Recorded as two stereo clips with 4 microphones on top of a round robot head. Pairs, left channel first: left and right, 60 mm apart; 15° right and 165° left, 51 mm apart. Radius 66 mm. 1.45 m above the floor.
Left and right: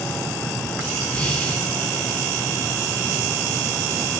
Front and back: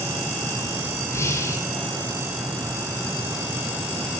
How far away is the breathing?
About 5.5 m.